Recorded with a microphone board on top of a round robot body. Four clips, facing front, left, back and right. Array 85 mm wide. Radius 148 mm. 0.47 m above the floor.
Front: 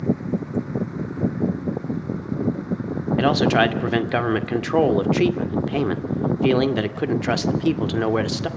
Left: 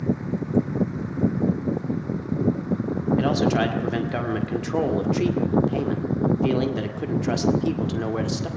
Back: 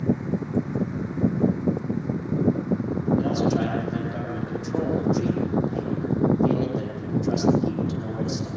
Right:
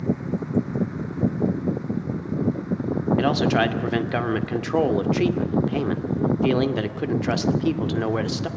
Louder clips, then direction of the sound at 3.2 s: Right 1 dB, front 10 dB; 20° right.